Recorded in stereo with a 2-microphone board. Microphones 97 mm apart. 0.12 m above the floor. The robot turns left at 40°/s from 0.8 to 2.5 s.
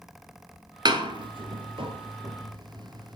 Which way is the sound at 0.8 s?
45° right (ahead or behind).